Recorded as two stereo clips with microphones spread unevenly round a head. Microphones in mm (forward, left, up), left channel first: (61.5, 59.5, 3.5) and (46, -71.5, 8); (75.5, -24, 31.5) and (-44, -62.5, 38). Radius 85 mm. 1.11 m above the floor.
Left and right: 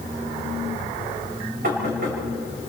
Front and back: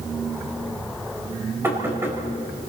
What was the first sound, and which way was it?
Knocking, 90° right.